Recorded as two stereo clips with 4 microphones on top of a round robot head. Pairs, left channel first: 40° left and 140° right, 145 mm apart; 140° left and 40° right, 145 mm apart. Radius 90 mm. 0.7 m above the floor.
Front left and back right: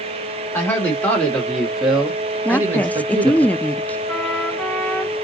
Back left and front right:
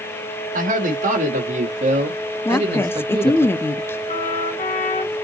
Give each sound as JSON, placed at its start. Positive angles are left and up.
{"t": 0.5, "sound": "a man speaking", "azimuth_deg": -30, "distance_m": 1.9}
{"t": 2.5, "sound": "a woman speaking", "azimuth_deg": 100, "distance_m": 0.5}
{"t": 4.1, "sound": "a trumpet", "azimuth_deg": 115, "distance_m": 2.5}